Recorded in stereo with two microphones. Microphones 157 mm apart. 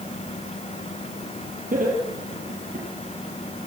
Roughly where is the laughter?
Right.